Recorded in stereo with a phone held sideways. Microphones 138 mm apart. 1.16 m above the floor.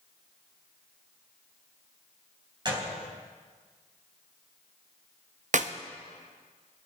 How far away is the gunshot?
About 4 m.